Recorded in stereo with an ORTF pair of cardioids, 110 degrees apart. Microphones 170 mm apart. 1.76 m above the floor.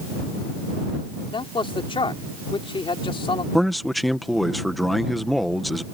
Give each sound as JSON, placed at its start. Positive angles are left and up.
{"t": 1.3, "sound": "a man speaking", "azimuth_deg": 30}
{"t": 3.5, "sound": "a man speaking", "azimuth_deg": 0}